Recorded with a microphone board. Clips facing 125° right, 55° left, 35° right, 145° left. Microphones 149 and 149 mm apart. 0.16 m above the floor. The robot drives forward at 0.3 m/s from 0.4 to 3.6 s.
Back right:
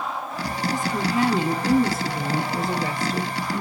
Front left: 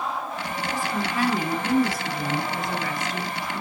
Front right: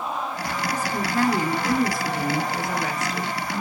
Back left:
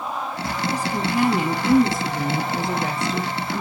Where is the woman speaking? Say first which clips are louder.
Back right 3 dB, back left 2 dB; 155° right, 1.1 m; by 3.6 s 170° right, 1.6 m.